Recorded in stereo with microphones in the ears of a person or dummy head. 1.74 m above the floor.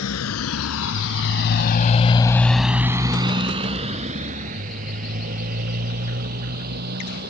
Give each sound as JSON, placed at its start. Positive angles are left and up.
{"t": 0.0, "sound": "a motorcycle", "side_deg": 85}